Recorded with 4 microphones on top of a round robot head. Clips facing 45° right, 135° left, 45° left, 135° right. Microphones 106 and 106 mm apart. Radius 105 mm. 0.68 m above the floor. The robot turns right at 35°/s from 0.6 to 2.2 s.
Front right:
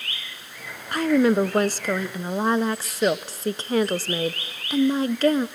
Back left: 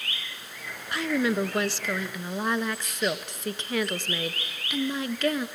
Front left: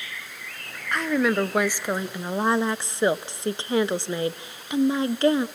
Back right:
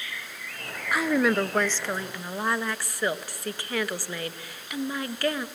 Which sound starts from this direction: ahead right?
A woman speaking, at 0.9 s.